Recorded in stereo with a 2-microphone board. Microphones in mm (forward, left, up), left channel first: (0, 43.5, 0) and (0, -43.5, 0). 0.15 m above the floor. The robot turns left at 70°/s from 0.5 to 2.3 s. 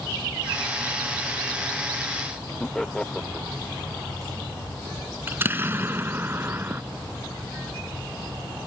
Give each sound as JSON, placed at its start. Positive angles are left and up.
{"t": 2.6, "sound": "laughter", "side_deg": 5}
{"t": 5.3, "sound": "an explosion", "side_deg": -25}